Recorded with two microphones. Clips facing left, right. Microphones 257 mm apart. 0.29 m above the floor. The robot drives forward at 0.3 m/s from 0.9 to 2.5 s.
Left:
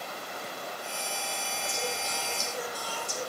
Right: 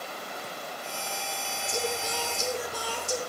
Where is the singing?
80° right, 3 m.